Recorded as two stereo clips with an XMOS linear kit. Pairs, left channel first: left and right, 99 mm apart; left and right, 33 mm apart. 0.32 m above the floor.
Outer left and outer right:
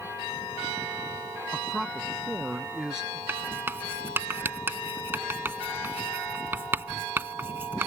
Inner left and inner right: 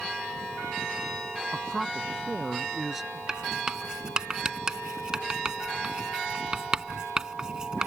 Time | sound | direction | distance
1.5 | a man speaking | centre (ahead or behind) | ?
3.3 | writing | 20° right (ahead or behind) | ?